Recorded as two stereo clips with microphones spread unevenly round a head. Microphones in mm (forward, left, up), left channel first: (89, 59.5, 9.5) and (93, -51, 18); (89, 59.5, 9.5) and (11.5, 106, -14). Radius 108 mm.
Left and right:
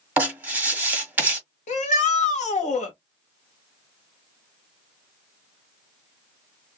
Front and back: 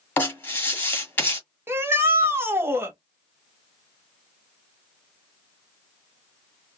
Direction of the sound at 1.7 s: 85° left.